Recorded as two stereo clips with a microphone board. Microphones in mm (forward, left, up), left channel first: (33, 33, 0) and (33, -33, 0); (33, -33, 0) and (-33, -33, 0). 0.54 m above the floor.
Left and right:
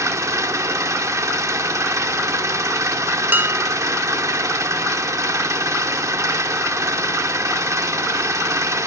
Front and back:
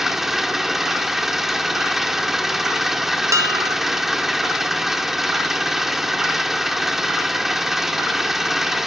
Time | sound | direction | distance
0.0 | an engine running | 95° right | 1.2 m
3.3 | dishes clattering | 145° right | 1.7 m